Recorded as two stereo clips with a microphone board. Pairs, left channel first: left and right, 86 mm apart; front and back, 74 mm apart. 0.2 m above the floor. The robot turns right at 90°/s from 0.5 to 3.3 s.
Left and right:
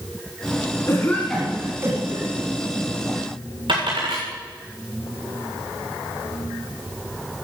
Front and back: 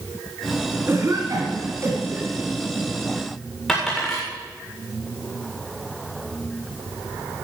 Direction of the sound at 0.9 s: 135° left.